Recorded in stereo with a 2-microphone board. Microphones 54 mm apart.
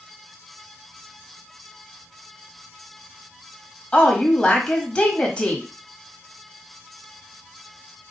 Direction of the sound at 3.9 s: 20° left (ahead or behind).